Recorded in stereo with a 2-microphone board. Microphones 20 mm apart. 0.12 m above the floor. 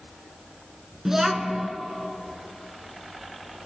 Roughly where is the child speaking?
Right.